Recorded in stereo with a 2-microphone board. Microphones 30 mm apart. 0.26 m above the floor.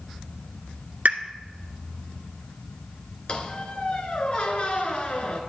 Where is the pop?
70° right (ahead or behind), 1.0 m.